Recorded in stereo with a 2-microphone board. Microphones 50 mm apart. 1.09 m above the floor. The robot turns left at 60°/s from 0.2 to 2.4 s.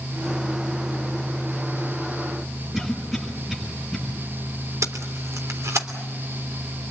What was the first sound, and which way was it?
A cough, 5° right (ahead or behind).